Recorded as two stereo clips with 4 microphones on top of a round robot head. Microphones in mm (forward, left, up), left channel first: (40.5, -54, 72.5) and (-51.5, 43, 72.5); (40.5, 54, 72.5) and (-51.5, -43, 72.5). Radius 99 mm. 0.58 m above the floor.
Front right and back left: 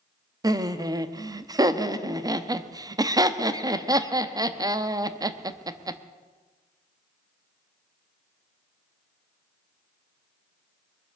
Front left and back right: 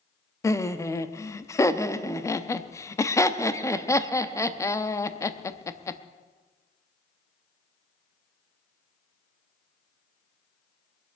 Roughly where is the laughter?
Left.